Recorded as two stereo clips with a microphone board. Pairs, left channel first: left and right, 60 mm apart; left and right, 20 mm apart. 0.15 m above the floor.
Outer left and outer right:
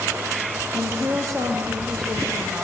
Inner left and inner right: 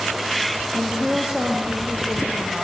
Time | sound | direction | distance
0.7 | a woman speaking | 10° right (ahead or behind) | 4 m